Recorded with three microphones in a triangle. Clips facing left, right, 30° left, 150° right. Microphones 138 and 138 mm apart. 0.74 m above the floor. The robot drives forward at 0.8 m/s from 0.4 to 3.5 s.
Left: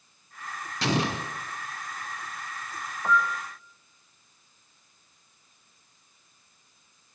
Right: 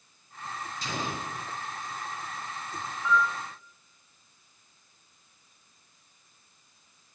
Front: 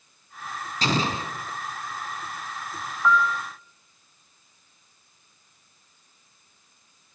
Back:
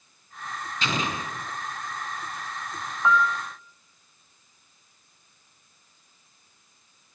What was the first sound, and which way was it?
An explosion, 85° left.